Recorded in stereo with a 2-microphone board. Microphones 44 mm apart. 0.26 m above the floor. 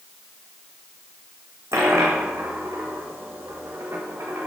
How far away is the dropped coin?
About 3 m.